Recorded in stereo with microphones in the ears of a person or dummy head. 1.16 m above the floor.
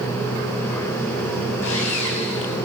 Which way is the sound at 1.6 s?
75° left (ahead or behind).